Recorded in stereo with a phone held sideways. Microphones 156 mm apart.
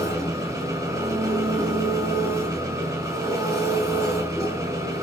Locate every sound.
0.0 s an engine running: 20° right (ahead or behind), 4 m